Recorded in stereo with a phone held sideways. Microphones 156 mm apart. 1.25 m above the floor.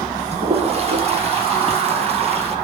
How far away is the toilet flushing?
About 1.3 m.